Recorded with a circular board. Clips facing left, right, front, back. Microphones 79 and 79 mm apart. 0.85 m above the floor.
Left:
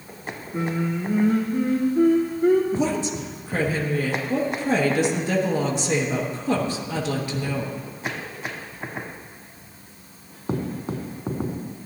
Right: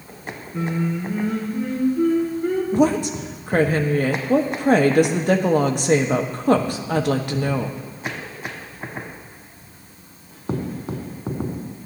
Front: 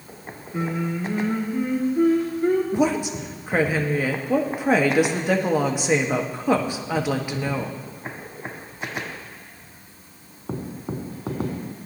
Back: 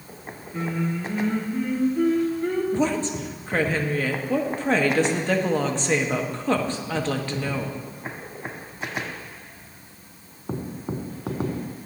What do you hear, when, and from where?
0.5 s singing: 75° left, 2 m
2.7 s a woman speaking: 75° right, 1.1 m